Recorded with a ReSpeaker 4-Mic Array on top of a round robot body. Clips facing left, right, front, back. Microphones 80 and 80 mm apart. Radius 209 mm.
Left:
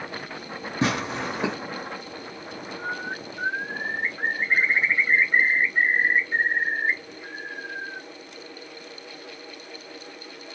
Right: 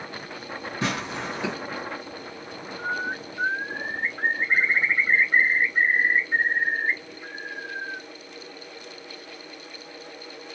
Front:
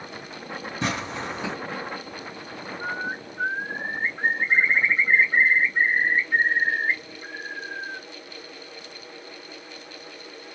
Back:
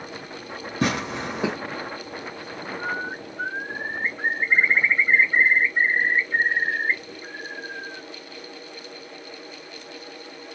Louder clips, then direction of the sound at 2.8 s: Right 4 dB, even; 25° right.